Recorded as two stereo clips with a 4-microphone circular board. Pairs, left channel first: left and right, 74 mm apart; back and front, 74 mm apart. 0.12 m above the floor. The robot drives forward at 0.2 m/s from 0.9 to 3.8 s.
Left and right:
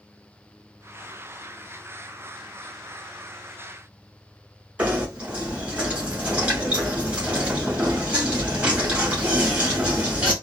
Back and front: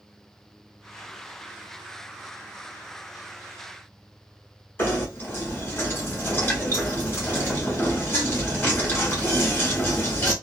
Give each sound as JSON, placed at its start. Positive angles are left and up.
{"t": 4.8, "sound": "knocking", "azimuth_deg": -150, "distance_m": 1.3}